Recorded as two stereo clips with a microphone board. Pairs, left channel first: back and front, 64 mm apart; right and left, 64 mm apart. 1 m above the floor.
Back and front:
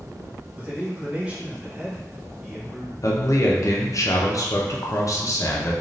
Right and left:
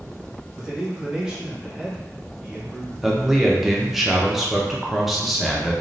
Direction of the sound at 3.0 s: 175° left.